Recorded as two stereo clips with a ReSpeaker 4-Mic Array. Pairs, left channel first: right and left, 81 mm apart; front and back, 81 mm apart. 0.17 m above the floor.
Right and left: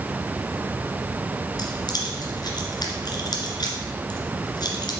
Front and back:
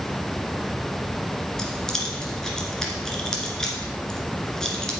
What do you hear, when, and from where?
1.6 s keys jangling: 80° right, 1.9 m